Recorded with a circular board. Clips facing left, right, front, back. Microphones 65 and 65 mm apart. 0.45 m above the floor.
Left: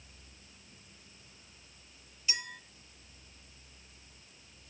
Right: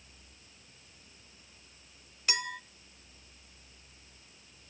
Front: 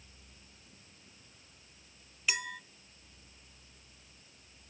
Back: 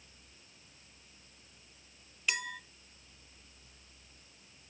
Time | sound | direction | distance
2.3 | a clink | 90° right | 0.7 m